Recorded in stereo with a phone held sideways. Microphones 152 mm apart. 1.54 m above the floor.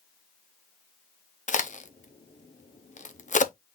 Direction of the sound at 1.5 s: 55° left (ahead or behind).